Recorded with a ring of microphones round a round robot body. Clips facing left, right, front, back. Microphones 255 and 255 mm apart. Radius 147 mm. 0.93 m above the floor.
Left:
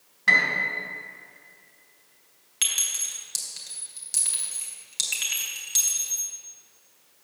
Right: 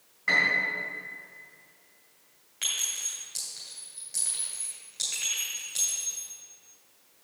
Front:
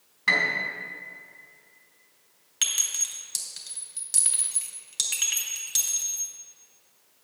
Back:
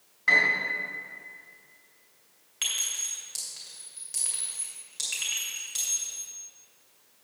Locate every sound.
0.3 s a piano: 40° left, 2.5 m
2.6 s a clink: 40° left, 2.5 m